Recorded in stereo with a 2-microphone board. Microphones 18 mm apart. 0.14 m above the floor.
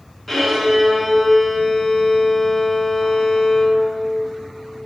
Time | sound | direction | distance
0.3 | a violin | centre (ahead or behind) | 1.2 m